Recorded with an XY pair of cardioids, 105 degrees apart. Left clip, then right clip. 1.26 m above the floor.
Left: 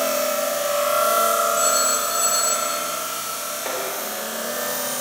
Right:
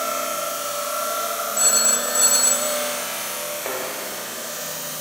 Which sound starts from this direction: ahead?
A thud, at 3.6 s.